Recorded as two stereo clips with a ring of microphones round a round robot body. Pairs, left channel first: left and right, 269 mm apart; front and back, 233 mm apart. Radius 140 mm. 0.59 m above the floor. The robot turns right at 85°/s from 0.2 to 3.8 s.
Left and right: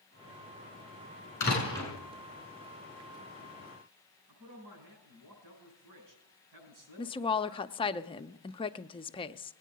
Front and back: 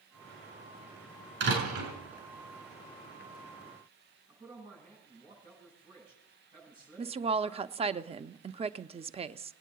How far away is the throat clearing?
I don't hear throat clearing.